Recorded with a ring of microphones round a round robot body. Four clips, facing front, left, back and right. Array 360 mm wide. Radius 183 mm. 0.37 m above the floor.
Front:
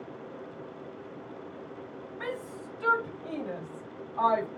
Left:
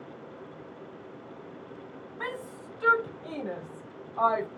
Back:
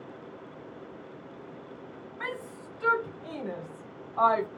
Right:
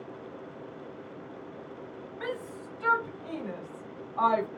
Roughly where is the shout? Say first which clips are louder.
Right 1 dB, front 1 dB; left.